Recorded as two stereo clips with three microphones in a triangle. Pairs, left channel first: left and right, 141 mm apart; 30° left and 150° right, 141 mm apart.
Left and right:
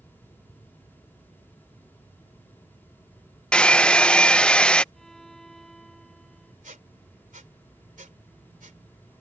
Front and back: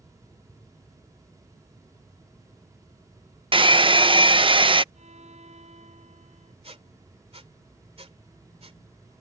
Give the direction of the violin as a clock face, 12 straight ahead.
6 o'clock.